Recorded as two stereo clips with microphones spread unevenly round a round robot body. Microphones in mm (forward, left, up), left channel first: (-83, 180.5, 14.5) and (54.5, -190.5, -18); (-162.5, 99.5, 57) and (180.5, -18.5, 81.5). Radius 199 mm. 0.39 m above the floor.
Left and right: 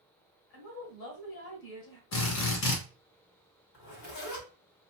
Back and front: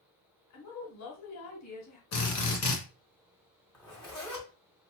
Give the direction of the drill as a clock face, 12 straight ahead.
7 o'clock.